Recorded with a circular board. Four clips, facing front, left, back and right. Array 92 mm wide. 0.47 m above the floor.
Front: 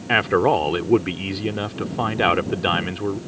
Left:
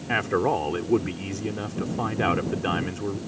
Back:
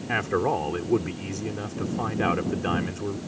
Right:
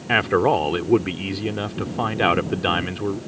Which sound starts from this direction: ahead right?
A man speaking, at 0.1 s.